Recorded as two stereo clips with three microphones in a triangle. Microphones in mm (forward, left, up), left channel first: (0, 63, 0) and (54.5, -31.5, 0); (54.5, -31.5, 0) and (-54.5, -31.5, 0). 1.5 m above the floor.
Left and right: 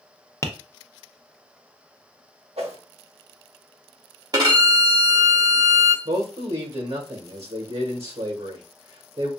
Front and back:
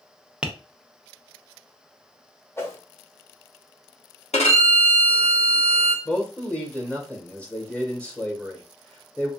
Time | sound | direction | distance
0.4 | tapping | 110° left | 0.5 m
2.6 | a whoosh | 65° right | 0.9 m
4.3 | a violin | 5° right | 0.9 m
6.0 | a man speaking | 80° right | 1.3 m